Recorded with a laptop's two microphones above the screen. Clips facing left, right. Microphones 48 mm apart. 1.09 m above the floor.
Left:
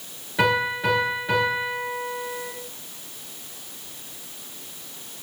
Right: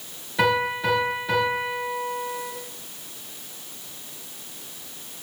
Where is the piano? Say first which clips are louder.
Even; 10° left (ahead or behind), 8 m.